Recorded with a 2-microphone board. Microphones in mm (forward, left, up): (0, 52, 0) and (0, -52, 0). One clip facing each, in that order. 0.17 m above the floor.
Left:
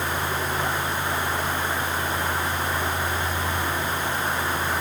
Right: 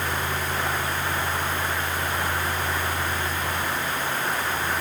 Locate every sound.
Only background noise.